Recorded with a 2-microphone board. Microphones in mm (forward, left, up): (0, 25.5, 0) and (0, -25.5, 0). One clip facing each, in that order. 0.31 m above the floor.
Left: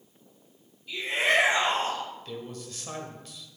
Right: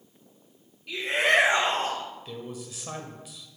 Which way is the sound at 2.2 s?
10° right (ahead or behind).